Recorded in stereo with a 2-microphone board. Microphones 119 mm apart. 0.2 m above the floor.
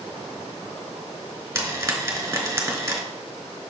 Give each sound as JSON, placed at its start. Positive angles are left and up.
{"t": 1.6, "sound": "frying", "side_deg": -25, "distance_m": 1.4}